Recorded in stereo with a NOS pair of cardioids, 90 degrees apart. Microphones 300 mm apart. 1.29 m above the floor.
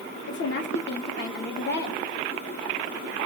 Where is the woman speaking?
40° left, 1.2 m.